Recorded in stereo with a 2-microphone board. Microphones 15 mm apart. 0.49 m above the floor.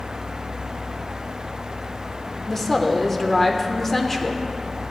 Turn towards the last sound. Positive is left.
turn(degrees=20)  # may be behind; listen again after turning